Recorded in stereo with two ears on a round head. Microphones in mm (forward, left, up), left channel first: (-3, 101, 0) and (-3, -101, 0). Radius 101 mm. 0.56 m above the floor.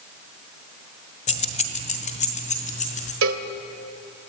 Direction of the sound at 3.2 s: 65° right (ahead or behind).